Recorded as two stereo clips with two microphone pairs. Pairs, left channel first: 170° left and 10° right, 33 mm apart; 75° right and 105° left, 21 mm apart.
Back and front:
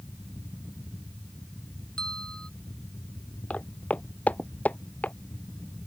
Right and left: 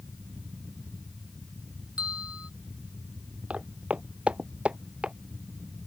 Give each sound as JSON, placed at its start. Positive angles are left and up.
{"t": 2.0, "sound": "a bell", "azimuth_deg": 110}
{"t": 3.5, "sound": "footsteps", "azimuth_deg": 125}